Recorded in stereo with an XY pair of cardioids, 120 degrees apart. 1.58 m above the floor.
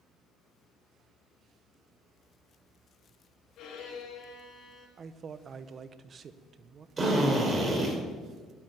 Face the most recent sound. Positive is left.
turn(degrees=-25)